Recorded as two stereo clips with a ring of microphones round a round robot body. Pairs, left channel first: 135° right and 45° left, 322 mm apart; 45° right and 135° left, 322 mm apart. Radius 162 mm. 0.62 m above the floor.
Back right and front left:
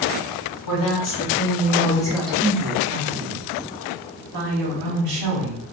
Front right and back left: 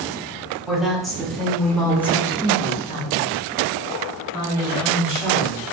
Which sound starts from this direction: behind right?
A woman speaking, at 0.7 s.